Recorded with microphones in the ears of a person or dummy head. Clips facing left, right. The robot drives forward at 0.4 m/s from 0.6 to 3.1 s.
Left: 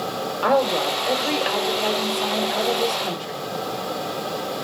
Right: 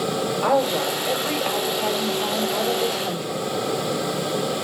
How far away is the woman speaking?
About 3.5 m.